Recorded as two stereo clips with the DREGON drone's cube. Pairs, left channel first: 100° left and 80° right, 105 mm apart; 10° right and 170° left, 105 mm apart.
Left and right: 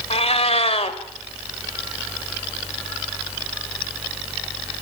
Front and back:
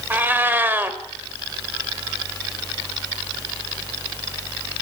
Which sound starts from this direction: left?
A cat meowing, at 0.1 s.